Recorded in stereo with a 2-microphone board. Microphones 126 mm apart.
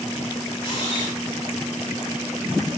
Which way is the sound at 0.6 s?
40° left (ahead or behind).